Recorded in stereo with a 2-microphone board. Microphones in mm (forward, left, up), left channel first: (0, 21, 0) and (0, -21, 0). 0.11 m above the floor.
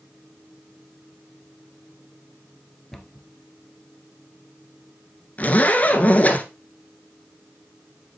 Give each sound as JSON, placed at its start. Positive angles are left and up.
{"t": 2.9, "sound": "a cupboard door", "side_deg": 5, "distance_m": 1.6}
{"t": 5.4, "sound": "a zipper", "side_deg": 35, "distance_m": 1.8}